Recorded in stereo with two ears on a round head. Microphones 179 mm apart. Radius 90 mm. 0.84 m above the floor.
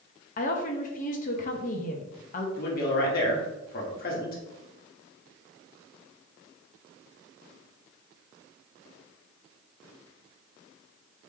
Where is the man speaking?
50° left (ahead or behind), 1.4 m.